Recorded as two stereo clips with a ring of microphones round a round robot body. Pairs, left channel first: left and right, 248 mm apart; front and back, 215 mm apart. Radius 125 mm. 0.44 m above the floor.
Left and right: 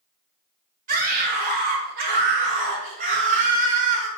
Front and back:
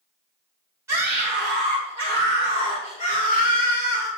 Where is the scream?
110° right, 1.6 m; by 4.1 s 35° right, 2 m.